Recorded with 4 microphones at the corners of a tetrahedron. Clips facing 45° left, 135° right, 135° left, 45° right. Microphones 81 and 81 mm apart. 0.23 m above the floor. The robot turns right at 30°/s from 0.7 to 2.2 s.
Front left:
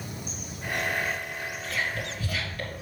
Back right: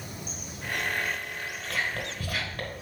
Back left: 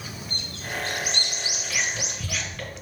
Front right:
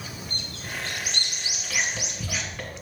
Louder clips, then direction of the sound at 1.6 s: Even, front right 1 dB; 135° right.